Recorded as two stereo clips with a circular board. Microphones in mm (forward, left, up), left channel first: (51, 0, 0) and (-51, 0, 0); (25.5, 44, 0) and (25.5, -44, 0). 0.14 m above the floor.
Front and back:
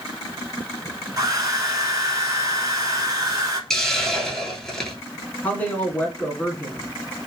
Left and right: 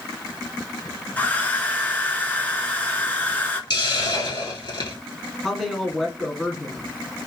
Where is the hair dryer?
150° left, 0.8 m.